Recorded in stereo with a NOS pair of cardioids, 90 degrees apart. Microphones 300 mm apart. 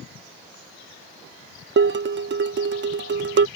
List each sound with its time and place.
1.8 s dishes clattering: 40° right